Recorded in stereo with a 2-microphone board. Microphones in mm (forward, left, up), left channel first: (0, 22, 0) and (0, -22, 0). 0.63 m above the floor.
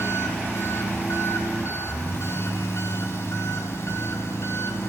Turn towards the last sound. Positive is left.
turn(degrees=80)